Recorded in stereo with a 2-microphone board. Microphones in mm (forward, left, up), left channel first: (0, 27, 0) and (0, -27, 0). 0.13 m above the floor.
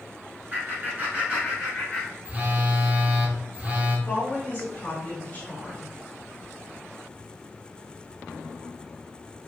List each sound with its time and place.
0.5 s laughter: 40° right (ahead or behind), 1.5 m; by 2.1 s centre (ahead or behind), 1.4 m
2.2 s a phone buzzing: 25° right (ahead or behind), 0.8 m
4.1 s a woman speaking: 15° left (ahead or behind), 1.6 m